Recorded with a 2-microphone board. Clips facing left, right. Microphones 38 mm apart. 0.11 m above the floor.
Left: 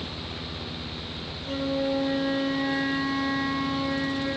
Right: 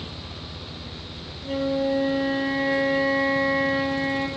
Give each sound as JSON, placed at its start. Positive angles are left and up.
{"t": 1.4, "sound": "a flute", "side_deg": -50, "distance_m": 1.3}